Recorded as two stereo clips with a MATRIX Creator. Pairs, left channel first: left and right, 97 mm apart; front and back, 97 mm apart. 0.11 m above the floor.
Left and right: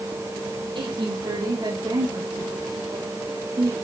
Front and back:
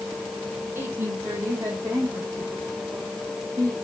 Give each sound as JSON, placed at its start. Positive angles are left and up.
{"t": 0.8, "sound": "a woman speaking", "azimuth_deg": -115, "distance_m": 5.0}